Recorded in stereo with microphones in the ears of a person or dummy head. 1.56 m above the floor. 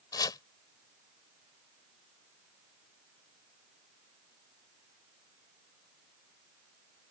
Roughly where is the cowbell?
I don't hear a cowbell.